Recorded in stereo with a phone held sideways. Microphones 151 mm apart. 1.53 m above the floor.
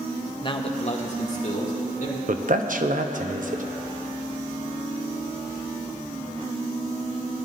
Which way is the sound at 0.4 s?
30° left (ahead or behind).